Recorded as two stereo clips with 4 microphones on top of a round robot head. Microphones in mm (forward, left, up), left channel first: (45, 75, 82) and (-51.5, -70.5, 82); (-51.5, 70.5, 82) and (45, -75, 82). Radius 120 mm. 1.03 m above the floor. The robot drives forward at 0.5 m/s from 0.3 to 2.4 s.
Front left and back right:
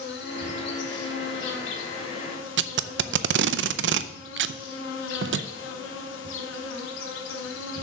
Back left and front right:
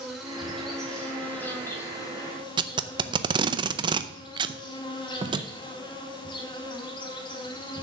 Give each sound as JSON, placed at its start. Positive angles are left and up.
{"t": 0.0, "sound": "an insect", "azimuth_deg": 30, "distance_m": 2.0}
{"t": 2.6, "sound": "tape being pulled", "azimuth_deg": -120, "distance_m": 0.6}